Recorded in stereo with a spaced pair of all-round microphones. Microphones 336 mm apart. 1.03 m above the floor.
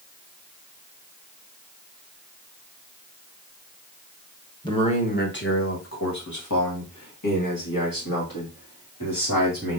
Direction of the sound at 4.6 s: 15° left (ahead or behind).